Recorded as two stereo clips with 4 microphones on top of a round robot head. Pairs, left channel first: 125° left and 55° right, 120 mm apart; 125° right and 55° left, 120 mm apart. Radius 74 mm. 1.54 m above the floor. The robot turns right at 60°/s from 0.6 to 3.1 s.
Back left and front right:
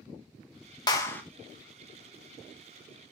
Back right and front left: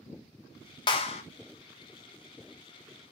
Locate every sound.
0.9 s a clap: 175° right, 1.0 m; by 1.2 s 155° right, 1.0 m